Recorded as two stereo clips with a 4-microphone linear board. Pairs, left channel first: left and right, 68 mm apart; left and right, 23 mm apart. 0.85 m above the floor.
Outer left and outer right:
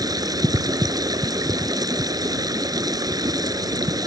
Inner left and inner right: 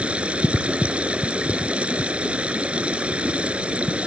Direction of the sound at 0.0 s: 75° right (ahead or behind).